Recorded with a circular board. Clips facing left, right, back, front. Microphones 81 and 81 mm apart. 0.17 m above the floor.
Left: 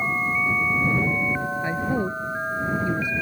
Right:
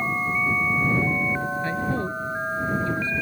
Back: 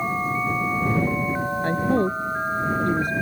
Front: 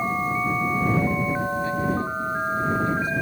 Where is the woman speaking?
165° left.